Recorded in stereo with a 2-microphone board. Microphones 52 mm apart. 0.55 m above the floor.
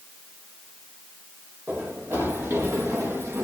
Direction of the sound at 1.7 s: 60° right (ahead or behind).